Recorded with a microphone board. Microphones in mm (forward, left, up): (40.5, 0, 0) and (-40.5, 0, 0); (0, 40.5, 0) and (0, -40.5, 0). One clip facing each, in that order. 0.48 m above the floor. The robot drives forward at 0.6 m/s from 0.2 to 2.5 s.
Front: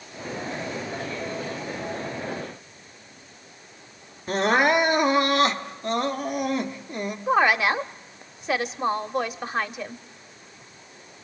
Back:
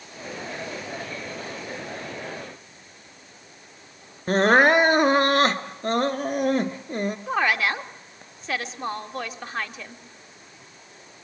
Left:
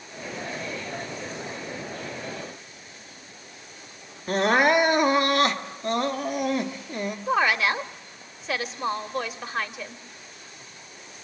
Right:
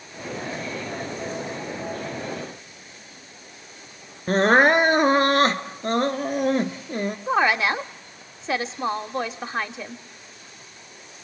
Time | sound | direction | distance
4.3 | crying | 135° right | 1.1 m
7.3 | a woman speaking | 60° right | 0.9 m